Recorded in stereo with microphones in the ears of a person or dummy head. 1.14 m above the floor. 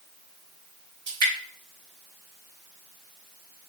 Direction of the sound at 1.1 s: 55° right (ahead or behind).